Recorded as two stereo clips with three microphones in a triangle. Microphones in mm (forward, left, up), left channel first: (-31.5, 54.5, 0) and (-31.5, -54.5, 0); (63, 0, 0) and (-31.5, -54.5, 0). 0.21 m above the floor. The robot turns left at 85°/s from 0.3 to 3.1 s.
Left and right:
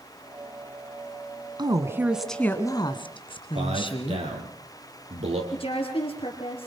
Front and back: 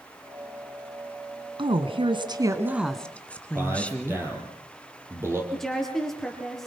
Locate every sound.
1.6 s a woman speaking: 125° right, 2 m; by 4.2 s 105° left, 2 m
3.5 s a man speaking: 80° right, 6 m
5.5 s a woman speaking: 120° left, 4.5 m